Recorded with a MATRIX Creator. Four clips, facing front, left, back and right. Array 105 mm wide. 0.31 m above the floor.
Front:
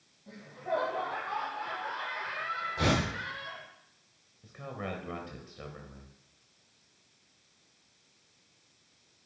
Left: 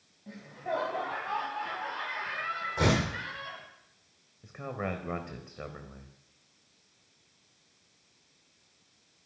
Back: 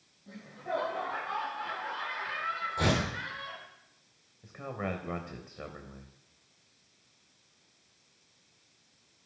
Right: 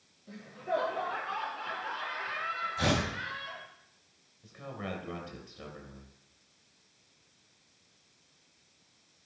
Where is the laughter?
85° left, 5.5 m.